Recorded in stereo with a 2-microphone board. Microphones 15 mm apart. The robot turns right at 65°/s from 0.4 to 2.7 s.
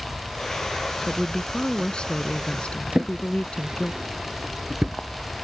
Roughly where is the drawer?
Right.